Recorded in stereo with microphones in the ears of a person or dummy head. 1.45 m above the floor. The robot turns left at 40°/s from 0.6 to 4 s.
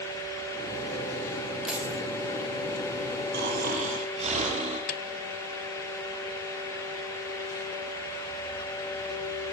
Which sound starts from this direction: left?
A snare drum, at 4.9 s.